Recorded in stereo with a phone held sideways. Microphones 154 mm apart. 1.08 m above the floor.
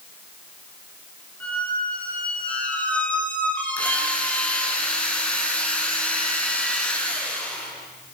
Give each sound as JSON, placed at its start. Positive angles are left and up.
{"t": 1.4, "sound": "a squeak", "side_deg": 10, "distance_m": 4.5}
{"t": 3.8, "sound": "a drill", "side_deg": 10, "distance_m": 5.0}